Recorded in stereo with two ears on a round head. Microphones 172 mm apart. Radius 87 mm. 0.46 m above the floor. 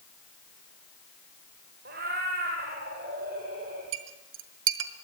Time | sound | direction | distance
1.9 | a cat meowing | 50° right (ahead or behind) | 5.5 m
3.9 | a clink | 70° right (ahead or behind) | 2.0 m